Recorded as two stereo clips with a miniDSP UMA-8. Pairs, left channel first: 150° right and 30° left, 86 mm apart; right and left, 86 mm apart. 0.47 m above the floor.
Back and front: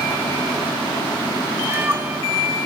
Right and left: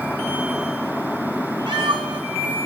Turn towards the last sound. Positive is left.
turn(degrees=95)